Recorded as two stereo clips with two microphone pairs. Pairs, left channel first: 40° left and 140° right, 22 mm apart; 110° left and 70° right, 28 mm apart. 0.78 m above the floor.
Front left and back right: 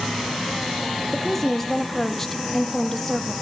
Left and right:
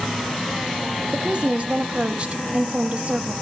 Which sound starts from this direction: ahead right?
A woman speaking, at 1.1 s.